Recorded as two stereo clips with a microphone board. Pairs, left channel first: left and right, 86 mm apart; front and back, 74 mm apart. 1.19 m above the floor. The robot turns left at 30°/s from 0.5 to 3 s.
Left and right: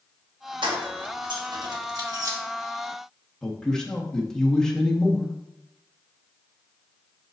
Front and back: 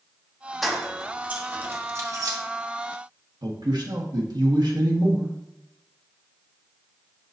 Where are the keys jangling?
90° right, 1.3 m; by 2.4 s 140° right, 1.3 m.